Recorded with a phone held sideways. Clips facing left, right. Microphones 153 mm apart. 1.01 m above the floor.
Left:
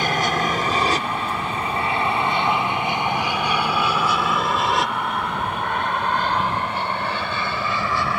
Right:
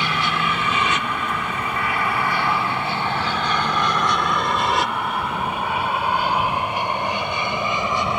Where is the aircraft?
45° left (ahead or behind); by 8.2 s 20° right (ahead or behind).